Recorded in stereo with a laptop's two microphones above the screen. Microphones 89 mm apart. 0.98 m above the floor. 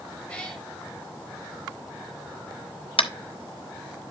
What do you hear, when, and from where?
0.3 s a cat meowing: 15° left (ahead or behind), 1.9 m
3.0 s tapping: 85° left, 0.6 m